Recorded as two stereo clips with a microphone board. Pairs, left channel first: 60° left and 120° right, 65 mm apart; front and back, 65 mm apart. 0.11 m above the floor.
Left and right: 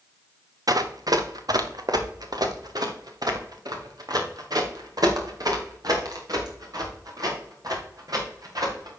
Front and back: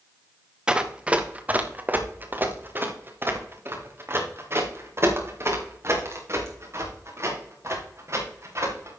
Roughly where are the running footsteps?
Right.